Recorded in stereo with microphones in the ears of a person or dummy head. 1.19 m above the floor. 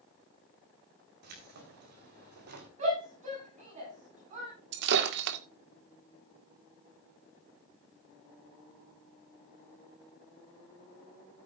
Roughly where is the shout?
Right.